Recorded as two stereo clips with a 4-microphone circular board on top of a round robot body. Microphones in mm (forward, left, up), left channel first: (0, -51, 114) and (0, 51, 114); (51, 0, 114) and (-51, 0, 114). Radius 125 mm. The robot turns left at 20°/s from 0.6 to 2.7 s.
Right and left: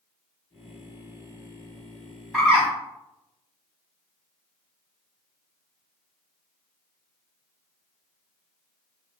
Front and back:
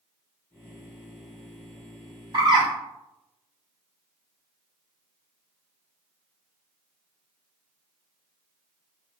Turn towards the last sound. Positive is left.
turn(degrees=170)